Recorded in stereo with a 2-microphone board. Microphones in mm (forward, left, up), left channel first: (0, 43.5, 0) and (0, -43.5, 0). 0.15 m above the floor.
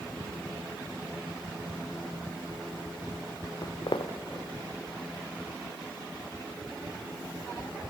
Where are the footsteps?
55° left (ahead or behind), 0.9 m; by 7.8 s centre (ahead or behind), 5 m.